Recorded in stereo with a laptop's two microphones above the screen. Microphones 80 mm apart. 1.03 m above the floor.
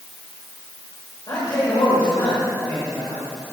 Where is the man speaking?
55° left (ahead or behind), 4 m; by 3.3 s 80° left, 2.5 m.